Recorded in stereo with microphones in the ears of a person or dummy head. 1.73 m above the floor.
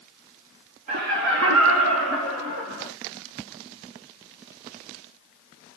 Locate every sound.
0.9 s laughter: 40° right (ahead or behind), 0.8 m; by 2.9 s 80° right, 3 m